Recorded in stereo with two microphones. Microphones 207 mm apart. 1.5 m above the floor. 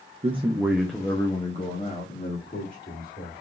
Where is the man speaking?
30° right (ahead or behind), 0.7 m; by 3.4 s 50° left (ahead or behind), 2 m.